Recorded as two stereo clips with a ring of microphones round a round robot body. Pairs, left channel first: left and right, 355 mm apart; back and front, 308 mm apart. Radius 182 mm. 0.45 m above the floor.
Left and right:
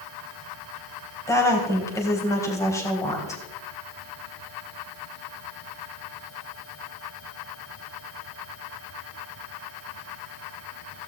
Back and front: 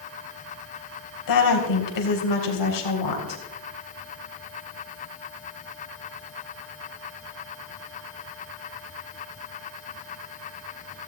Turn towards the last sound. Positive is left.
turn(degrees=170)